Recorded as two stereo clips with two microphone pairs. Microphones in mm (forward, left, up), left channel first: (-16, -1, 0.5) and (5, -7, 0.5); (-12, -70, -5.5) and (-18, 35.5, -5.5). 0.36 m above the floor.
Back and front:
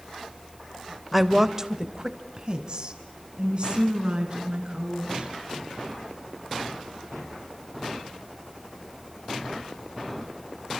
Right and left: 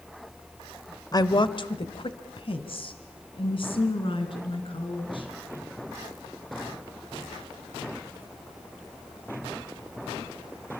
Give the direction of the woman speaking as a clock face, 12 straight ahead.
3 o'clock.